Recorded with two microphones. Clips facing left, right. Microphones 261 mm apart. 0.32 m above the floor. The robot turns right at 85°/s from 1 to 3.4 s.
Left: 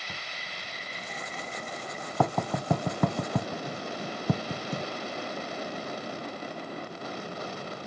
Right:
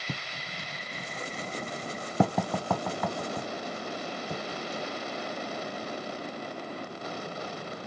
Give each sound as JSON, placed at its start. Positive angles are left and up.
{"t": 0.1, "sound": "writing", "side_deg": -50, "distance_m": 0.9}